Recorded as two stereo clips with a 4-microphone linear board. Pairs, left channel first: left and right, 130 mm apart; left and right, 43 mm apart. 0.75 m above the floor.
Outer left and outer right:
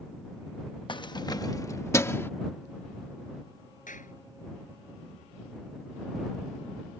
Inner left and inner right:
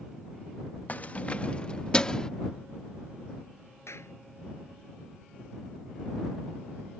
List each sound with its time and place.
0.9 s keys jangling: 40° left (ahead or behind); by 2.3 s 20° left (ahead or behind)
3.9 s a clap: 85° left